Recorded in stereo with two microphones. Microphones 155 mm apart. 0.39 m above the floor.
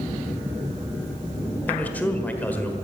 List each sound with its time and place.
1.7 s a man speaking: 10° left (ahead or behind), 1.4 m